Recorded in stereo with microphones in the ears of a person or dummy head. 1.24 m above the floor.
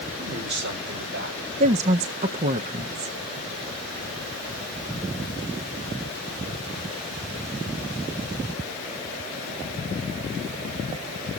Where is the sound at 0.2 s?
60° right (ahead or behind), 3.5 m; by 1.5 s 75° right (ahead or behind), 5.5 m.